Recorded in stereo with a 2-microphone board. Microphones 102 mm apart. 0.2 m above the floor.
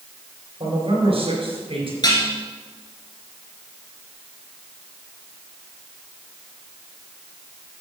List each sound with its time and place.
0.6 s a man speaking: 65° right (ahead or behind), 3.5 m
2.0 s dishes clattering: 40° left (ahead or behind), 2 m